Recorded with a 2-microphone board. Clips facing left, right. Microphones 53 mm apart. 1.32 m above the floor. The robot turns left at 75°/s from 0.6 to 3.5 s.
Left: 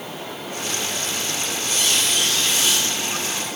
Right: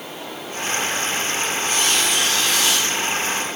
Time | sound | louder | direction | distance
1.6 | a squeak | right 1 dB | 40° right | 6.5 m